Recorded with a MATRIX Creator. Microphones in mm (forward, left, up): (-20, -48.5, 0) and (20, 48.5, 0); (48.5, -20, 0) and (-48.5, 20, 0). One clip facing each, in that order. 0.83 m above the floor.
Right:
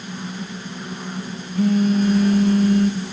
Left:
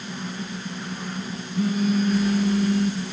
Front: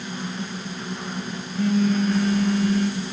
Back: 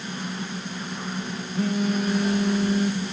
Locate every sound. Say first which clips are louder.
1.6 s a phone buzzing: right 5 dB, front 4 dB; 125° right, 5 m